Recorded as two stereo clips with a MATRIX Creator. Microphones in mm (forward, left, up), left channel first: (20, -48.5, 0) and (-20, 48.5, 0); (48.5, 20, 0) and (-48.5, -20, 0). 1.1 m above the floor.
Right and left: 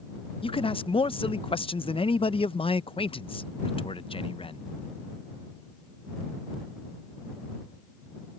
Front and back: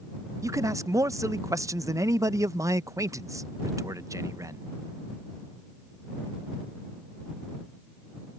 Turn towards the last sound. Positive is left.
turn(degrees=-100)